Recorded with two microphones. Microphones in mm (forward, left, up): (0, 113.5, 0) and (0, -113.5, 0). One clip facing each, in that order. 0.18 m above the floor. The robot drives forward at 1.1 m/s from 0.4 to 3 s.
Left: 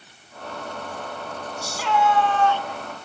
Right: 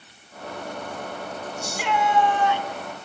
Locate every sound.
1.6 s a shout: 20° right (ahead or behind), 1.7 m; by 2.7 s 15° right (ahead or behind), 2.5 m